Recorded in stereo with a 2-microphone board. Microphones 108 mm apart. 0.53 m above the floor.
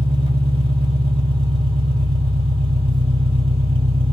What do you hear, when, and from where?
0.0 s an engine running: 55° right (ahead or behind), 1.7 m